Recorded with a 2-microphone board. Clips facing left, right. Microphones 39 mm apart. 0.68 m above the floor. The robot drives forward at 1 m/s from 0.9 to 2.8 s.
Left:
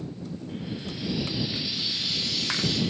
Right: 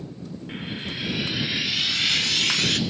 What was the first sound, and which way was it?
Frying, 60° right (ahead or behind).